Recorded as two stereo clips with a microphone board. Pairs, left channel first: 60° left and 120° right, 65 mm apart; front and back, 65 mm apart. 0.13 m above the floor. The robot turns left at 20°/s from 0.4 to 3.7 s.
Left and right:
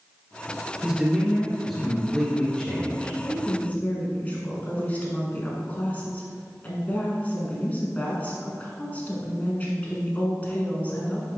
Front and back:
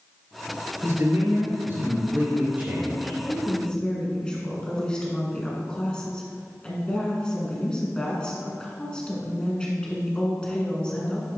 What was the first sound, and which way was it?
A man speaking, 170° left.